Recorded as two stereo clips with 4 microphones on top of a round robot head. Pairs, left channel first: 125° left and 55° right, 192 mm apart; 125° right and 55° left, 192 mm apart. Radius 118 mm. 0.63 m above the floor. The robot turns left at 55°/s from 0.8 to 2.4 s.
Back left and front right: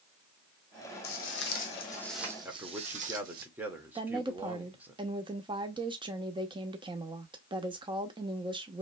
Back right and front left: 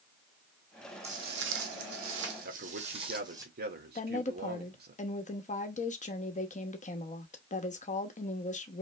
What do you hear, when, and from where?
1.0 s footsteps: 115° left, 1.7 m; by 3.5 s 15° right, 1.3 m
2.5 s a man speaking: 25° left, 1.7 m
4.0 s a woman speaking: 105° right, 1.1 m